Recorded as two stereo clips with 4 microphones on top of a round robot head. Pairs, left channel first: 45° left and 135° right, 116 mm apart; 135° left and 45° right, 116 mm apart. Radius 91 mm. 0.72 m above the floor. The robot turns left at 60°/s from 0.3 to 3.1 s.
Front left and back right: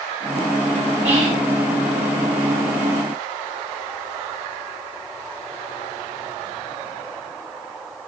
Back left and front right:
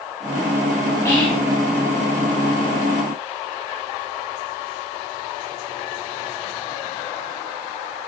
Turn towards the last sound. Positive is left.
turn(degrees=75)